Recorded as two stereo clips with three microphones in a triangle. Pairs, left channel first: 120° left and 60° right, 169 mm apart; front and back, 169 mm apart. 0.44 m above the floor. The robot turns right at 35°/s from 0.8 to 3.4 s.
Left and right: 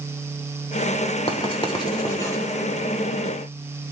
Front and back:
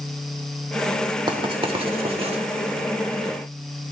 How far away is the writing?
About 1.1 m.